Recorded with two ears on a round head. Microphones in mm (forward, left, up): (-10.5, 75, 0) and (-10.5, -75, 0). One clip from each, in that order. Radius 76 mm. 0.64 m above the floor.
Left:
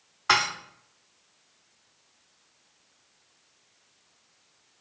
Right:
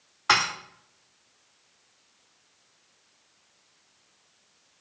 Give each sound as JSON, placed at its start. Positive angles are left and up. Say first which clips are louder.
{"t": 0.3, "sound": "dishes clattering", "louder": "right 1 dB", "side_deg": -5, "distance_m": 0.8}